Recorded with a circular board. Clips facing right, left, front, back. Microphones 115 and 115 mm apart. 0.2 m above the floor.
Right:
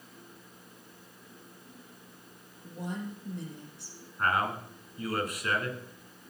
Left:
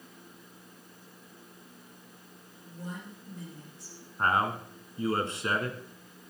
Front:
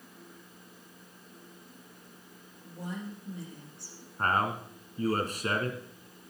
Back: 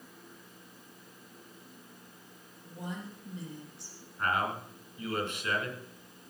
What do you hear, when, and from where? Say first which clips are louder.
2.6 s a woman speaking: right 5 dB, front 2 dB; 95° right, 5.5 m
4.2 s a man speaking: left 2 dB, front 3 dB; 35° left, 2 m